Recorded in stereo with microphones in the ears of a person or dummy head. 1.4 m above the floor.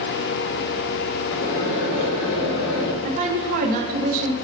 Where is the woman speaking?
45° right (ahead or behind), 1.1 m.